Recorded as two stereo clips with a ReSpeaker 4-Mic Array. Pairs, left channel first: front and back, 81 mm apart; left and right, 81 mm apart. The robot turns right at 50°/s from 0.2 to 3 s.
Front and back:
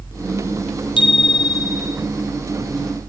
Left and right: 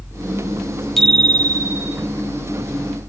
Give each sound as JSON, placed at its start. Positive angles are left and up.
{"t": 1.0, "sound": "a bicycle bell", "azimuth_deg": 5, "distance_m": 4.0}